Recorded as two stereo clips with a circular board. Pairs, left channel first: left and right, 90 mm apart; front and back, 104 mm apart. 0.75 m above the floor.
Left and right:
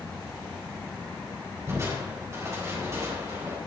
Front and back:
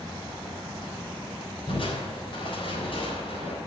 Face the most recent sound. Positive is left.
turn(degrees=-30)